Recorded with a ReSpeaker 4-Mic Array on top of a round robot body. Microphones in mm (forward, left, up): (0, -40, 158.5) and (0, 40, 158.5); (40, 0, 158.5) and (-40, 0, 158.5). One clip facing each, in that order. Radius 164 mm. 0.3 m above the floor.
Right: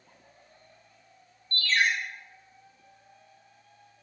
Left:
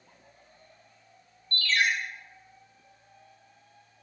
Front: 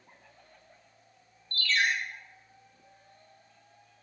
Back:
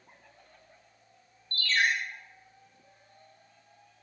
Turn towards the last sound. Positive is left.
turn(degrees=-135)